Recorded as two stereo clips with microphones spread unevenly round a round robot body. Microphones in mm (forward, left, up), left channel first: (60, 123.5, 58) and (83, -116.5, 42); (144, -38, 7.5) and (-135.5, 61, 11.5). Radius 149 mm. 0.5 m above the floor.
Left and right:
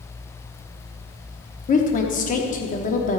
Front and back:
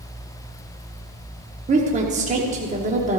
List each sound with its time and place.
1.7 s a woman speaking: 120° left, 1.1 m